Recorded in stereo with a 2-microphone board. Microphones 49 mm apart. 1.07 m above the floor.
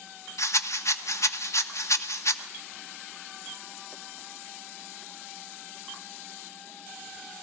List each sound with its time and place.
0.4 s a rattle: 75° left (ahead or behind), 1.3 m